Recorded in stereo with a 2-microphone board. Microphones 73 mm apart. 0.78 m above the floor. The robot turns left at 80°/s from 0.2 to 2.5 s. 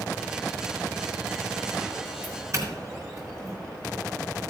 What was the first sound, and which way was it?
A doorbell, 25° right (ahead or behind).